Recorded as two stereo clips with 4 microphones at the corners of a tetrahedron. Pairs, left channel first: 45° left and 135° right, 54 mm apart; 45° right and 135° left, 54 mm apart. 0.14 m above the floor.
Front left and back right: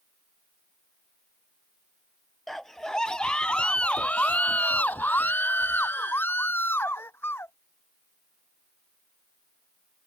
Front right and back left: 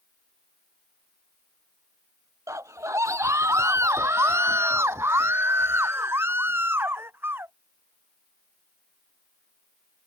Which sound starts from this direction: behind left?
A scream, at 2.5 s.